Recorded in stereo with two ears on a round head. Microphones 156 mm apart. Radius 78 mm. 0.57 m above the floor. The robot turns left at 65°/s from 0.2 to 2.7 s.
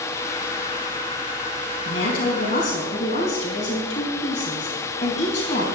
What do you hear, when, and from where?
1.9 s a woman speaking: 95° left, 4.5 m; by 5.7 s 40° left, 4.5 m